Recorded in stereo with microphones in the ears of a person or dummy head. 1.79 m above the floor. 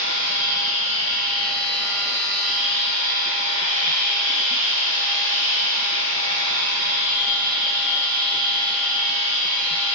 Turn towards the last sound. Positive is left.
turn(degrees=-35)  # may be behind; listen again after turning